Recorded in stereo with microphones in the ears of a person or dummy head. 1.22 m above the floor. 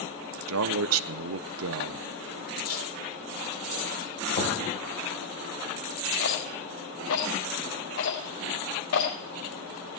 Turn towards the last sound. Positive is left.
turn(degrees=85)